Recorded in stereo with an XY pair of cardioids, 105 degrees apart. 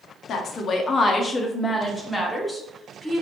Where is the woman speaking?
65° left, 0.8 m; by 3.2 s straight ahead, 1.8 m.